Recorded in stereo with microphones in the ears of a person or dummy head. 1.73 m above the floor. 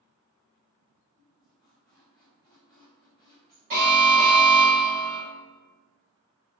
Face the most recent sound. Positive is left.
turn(degrees=-75)  # may be behind; listen again after turning